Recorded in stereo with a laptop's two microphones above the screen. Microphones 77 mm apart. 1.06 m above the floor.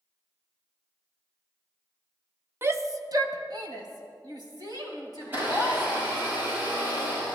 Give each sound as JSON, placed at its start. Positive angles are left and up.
{"t": 2.6, "sound": "a shout", "side_deg": -30, "distance_m": 0.9}
{"t": 5.2, "sound": "a blender", "side_deg": -25, "distance_m": 7.0}